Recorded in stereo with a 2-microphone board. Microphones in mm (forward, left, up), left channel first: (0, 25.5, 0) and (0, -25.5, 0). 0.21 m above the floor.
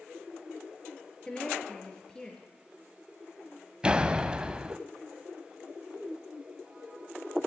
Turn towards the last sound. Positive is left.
turn(degrees=-20)  # may be behind; listen again after turning